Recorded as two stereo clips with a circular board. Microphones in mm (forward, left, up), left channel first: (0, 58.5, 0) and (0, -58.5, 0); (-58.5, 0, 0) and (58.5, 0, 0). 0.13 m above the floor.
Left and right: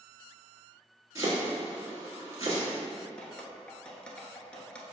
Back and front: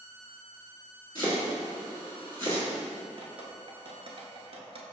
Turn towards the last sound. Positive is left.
turn(degrees=10)